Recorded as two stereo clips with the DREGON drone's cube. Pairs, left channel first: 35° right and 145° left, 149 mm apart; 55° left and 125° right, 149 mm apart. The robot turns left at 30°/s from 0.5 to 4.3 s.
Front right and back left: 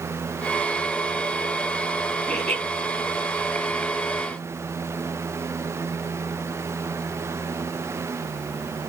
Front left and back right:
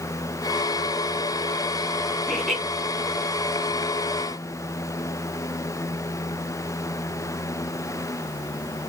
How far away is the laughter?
About 1.6 m.